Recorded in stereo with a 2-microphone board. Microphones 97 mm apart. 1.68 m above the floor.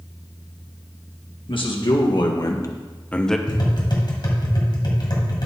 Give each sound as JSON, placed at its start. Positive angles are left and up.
{"t": 1.5, "sound": "a man speaking", "side_deg": 65, "distance_m": 1.8}
{"t": 3.5, "sound": "tapping", "side_deg": 55, "distance_m": 2.5}